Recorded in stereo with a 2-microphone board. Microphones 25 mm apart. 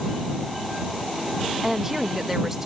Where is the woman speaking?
10° right (ahead or behind).